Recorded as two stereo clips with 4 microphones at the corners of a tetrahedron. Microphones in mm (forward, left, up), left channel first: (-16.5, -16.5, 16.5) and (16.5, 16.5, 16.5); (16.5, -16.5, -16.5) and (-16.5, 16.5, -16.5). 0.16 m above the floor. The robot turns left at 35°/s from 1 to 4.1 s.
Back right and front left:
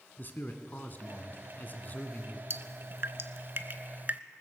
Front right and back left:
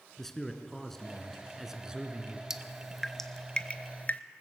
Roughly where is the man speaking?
Behind right.